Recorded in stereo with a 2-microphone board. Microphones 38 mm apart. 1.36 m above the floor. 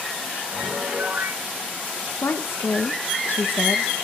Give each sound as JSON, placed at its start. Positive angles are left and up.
{"t": 0.5, "sound": "a piano", "side_deg": -80, "distance_m": 8.0}
{"t": 2.2, "sound": "a woman speaking", "side_deg": 75, "distance_m": 1.3}